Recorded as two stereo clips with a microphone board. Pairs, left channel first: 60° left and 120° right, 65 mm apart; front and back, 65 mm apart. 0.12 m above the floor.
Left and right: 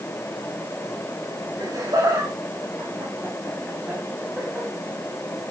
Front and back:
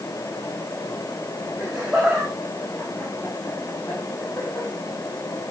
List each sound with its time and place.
1.6 s laughter: 95° right, 5 m; by 4.7 s 40° right, 5.5 m